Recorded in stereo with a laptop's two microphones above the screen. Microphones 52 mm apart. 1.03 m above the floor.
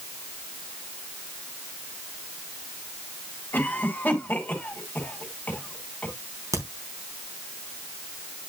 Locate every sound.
3.5 s a cough: 30° left (ahead or behind), 3.5 m
6.5 s a crack: 80° right, 3.5 m